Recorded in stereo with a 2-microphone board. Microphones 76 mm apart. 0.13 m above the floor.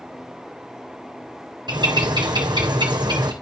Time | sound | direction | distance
1.7 | a bird | 70° right (ahead or behind) | 2.5 m